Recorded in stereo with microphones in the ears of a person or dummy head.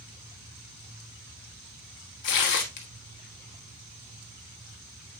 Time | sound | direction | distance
2.2 | tearing paper | 60° left (ahead or behind) | 1.4 m